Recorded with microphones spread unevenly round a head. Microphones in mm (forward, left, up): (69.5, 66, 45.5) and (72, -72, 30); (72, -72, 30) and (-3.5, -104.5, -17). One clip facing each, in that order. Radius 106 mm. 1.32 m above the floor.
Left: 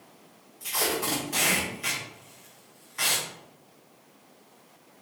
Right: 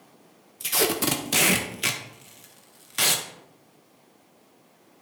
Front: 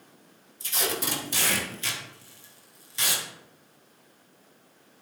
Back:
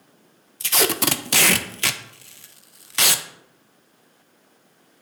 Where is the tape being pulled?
125° right, 0.6 m.